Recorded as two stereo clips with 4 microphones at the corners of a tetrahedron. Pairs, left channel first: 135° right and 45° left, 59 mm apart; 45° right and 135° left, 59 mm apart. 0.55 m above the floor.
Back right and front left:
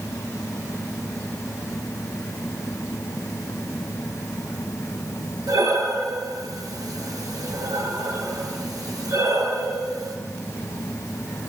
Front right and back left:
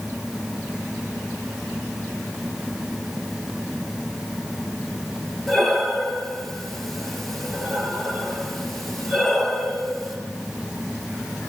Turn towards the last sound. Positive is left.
turn(degrees=40)